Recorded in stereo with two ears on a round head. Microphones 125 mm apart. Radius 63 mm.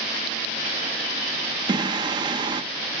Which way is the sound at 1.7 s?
30° right (ahead or behind).